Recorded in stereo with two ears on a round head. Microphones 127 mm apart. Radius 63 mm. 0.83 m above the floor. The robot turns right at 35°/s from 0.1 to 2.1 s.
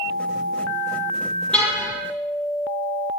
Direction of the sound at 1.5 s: 10° left (ahead or behind).